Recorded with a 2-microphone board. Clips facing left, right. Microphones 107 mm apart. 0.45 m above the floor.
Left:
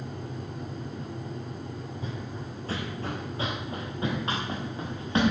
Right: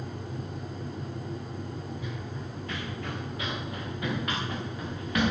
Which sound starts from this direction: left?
Running footsteps, at 2.0 s.